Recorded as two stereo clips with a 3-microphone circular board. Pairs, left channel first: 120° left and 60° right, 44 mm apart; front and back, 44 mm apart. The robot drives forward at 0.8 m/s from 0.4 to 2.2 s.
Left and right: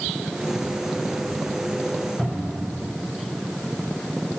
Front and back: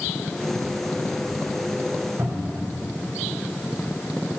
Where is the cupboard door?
160° right, 3.5 m.